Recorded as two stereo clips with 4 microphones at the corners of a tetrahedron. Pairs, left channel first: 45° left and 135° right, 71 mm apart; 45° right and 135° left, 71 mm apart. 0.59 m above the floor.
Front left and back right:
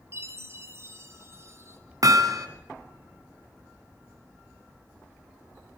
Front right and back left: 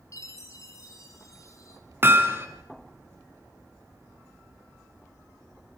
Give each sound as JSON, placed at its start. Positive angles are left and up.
{"t": 0.1, "sound": "a chime", "azimuth_deg": -85, "distance_m": 2.5}
{"t": 2.0, "sound": "hammering", "azimuth_deg": -170, "distance_m": 2.0}